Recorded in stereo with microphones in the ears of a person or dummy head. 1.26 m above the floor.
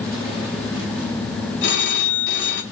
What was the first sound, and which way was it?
A phone ringing, 60° left (ahead or behind).